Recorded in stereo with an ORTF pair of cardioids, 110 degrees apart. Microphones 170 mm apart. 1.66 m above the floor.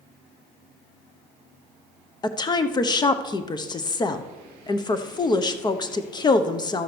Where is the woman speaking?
25° left, 0.9 m.